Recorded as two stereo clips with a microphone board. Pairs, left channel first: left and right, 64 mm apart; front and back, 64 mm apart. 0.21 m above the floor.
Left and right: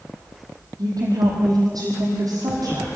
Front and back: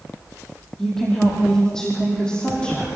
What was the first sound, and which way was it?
A woman speaking, 85° right.